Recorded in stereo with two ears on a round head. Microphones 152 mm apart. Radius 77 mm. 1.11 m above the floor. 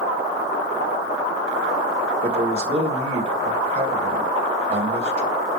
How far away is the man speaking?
About 2.5 m.